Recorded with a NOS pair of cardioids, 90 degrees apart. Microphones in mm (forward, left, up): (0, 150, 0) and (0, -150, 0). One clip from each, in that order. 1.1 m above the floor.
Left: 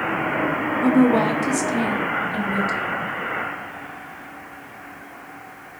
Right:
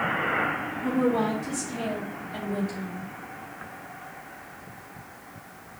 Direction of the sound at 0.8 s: 65° left.